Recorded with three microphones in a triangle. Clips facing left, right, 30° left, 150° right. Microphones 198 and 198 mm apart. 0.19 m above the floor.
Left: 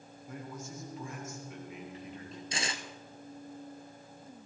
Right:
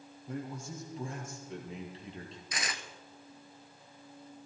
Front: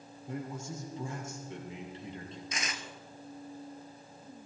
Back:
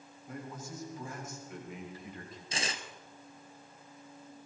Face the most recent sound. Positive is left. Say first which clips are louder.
# left 3 dB, back 5 dB
turn(degrees=150)